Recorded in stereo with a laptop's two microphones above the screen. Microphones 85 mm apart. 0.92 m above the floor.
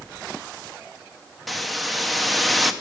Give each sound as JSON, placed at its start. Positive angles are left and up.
{"t": 1.5, "sound": "a hiss", "side_deg": 0, "distance_m": 0.7}